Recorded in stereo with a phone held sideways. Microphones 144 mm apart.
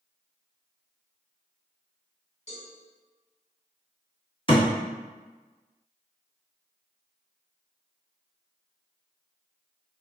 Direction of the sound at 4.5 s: 40° left (ahead or behind).